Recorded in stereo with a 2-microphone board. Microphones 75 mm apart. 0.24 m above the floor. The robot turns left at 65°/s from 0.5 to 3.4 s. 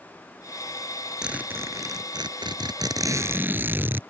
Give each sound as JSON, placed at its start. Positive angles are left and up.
{"t": 1.2, "sound": "a zipper", "azimuth_deg": -10}